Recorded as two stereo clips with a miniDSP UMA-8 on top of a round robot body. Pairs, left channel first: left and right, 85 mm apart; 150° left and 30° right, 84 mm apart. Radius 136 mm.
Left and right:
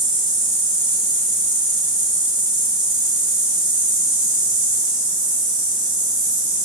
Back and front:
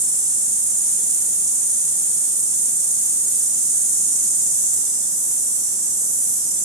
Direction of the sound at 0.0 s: 75° right.